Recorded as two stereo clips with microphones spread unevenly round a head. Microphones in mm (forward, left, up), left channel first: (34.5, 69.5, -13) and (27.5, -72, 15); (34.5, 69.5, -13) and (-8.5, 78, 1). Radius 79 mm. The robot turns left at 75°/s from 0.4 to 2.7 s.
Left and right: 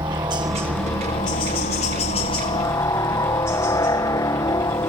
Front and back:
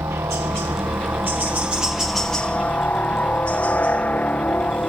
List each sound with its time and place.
0.0 s a helicopter: 160° right; by 4.9 s 30° left